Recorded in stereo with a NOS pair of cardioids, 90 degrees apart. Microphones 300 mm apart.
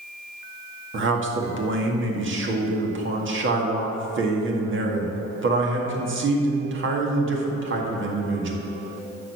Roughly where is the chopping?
I don't hear chopping.